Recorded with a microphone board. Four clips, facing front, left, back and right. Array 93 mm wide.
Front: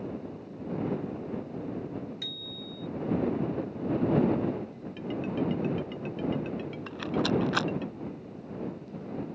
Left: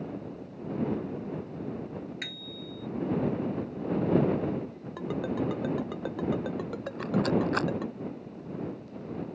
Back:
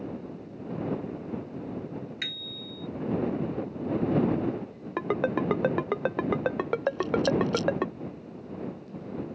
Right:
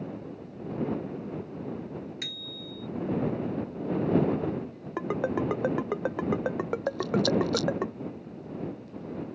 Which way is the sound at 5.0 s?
160° right.